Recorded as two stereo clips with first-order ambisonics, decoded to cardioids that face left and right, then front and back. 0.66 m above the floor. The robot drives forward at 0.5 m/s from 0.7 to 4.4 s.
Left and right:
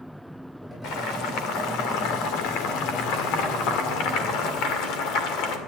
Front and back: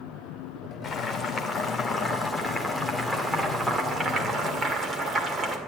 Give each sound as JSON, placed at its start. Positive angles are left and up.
{"t": 0.8, "sound": "boiling", "azimuth_deg": 60, "distance_m": 2.0}